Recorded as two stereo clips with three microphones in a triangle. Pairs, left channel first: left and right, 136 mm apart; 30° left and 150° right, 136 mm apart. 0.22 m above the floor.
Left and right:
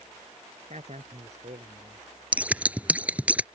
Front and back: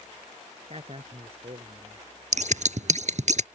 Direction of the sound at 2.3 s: 170° right.